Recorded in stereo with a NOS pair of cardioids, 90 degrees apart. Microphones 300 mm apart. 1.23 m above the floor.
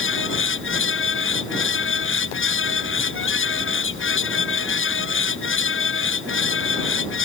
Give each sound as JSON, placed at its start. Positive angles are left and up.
{"t": 0.0, "sound": "a fan", "azimuth_deg": 40}